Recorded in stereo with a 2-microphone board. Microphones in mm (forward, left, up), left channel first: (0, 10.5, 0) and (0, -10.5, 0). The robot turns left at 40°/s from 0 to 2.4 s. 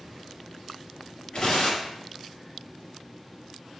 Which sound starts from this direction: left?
Tearing paper, at 1.3 s.